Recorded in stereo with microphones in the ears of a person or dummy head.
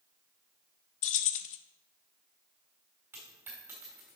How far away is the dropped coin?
About 2.0 m.